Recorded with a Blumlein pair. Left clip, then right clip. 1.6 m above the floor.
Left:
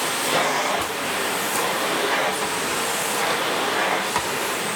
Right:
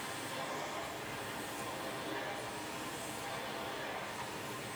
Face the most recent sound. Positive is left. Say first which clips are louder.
# left 20 dB
turn(degrees=45)